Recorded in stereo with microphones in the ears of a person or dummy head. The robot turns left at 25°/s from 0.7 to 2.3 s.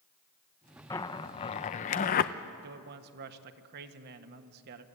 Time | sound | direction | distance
0.9 | a zipper | 15° left (ahead or behind) | 0.7 m
2.6 | a man speaking | 50° right (ahead or behind) | 1.5 m